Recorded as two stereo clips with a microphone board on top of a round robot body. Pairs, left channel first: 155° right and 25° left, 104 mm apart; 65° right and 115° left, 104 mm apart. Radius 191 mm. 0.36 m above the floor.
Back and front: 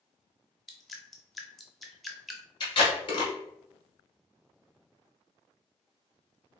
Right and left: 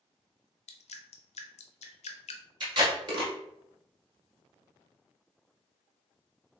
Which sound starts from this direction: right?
Dripping, at 0.7 s.